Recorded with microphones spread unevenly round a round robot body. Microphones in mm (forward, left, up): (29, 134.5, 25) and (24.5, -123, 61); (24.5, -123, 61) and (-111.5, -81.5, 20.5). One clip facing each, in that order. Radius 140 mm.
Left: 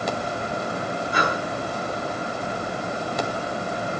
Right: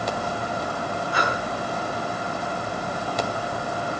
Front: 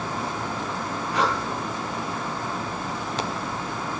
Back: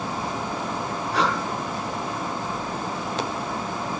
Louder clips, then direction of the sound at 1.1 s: Left 2 dB, even; 100° left.